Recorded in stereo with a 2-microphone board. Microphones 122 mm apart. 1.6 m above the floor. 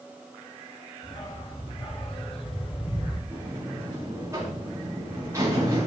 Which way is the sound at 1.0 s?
45° left (ahead or behind).